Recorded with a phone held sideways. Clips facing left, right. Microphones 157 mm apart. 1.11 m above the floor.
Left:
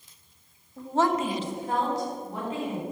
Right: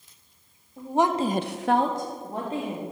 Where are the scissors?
I don't hear scissors.